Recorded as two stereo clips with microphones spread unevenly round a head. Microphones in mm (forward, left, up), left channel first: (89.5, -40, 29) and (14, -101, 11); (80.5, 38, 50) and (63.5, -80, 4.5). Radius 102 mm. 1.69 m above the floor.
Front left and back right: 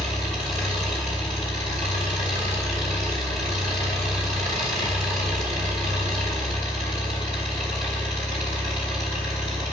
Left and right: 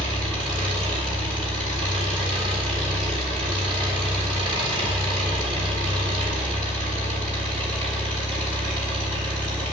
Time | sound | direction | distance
0.0 | an engine running | 175° right | 3.5 m